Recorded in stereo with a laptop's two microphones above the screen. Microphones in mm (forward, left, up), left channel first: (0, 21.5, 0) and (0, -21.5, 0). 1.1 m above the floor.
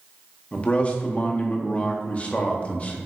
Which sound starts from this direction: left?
A man speaking, at 0.5 s.